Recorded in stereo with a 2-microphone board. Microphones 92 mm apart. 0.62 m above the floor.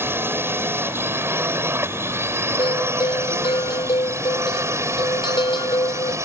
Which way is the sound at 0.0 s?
25° right (ahead or behind).